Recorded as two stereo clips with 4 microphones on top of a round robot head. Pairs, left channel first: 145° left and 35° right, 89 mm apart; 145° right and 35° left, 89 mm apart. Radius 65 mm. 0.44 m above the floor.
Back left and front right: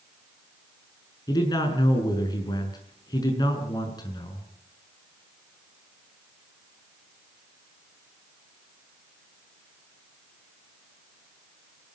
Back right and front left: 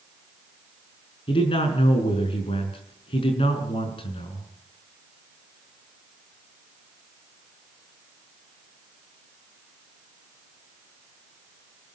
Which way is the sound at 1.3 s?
170° right.